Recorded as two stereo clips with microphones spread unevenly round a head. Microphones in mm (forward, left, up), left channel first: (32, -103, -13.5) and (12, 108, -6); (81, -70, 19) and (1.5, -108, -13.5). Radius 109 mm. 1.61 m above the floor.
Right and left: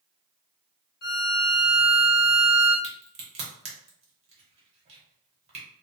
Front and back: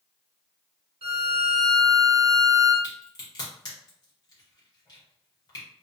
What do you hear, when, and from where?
1.0 s a violin: 130° right, 0.8 m
2.8 s a crack: 40° left, 1.0 m